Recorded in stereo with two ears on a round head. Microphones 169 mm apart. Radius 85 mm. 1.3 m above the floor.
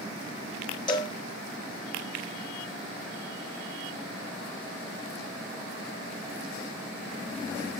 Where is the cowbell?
25° left (ahead or behind), 0.5 m.